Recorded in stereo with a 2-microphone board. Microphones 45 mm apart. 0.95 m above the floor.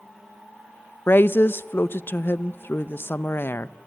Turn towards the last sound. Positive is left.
turn(degrees=55)  # may be behind; listen again after turning